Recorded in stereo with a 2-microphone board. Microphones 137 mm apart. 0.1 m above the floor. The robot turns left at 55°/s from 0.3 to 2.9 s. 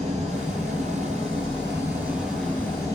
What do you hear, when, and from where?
0.0 s an engine running: 65° right, 1.2 m; by 2.9 s 150° left, 1.2 m